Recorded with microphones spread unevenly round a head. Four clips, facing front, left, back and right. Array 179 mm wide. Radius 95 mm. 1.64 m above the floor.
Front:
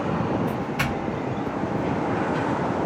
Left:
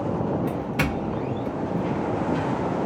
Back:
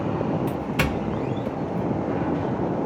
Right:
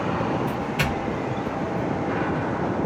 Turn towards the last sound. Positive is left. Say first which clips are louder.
# even, back 1 dB
turn(degrees=170)